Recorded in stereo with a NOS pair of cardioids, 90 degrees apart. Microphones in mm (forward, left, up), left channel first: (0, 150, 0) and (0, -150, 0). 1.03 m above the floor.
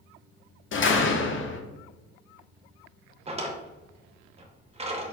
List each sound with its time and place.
0.7 s a door slam: 40° left, 0.8 m
3.3 s a drawer: 20° right, 0.9 m